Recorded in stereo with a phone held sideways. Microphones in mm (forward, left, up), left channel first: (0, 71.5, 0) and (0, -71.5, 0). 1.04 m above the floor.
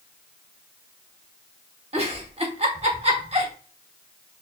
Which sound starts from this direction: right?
A giggle, at 1.9 s.